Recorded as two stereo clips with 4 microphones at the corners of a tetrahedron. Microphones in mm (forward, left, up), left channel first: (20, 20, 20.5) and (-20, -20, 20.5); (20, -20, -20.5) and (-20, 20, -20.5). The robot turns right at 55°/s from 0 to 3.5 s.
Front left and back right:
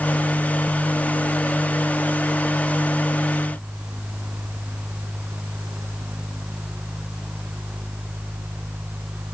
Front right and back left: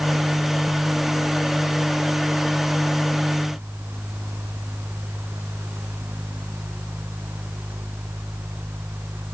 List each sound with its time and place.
Only background noise.